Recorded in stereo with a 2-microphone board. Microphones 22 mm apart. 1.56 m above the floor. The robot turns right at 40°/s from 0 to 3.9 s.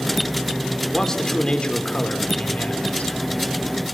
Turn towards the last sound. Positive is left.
turn(degrees=135)